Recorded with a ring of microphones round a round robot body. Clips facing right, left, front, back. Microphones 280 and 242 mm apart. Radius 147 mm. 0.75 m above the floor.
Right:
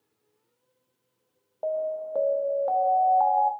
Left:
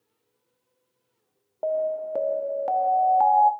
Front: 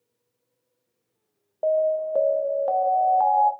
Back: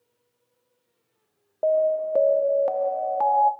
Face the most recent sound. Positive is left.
turn(degrees=125)